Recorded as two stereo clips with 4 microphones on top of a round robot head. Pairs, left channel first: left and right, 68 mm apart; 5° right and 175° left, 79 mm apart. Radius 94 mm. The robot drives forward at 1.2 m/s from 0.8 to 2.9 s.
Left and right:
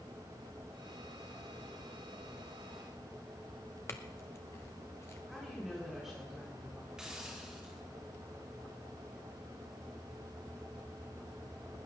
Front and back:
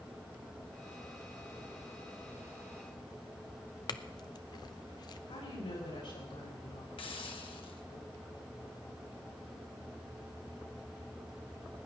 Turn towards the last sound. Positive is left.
turn(degrees=-10)